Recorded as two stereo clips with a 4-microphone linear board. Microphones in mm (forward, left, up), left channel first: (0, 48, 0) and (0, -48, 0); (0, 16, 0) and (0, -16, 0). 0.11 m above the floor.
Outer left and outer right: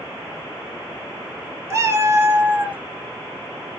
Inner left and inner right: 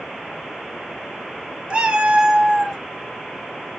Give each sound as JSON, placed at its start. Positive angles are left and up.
{"t": 1.7, "sound": "a cat meowing", "side_deg": -30, "distance_m": 0.7}